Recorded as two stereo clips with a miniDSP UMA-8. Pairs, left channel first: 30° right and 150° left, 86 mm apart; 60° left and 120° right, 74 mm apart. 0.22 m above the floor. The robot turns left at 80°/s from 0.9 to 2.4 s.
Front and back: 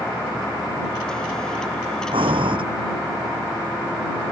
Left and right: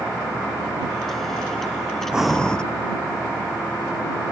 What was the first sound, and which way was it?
Breathing, 160° left.